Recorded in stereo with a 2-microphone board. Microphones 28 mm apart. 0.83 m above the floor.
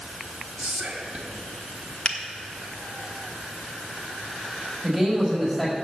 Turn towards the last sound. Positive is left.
turn(degrees=10)  # may be behind; listen again after turning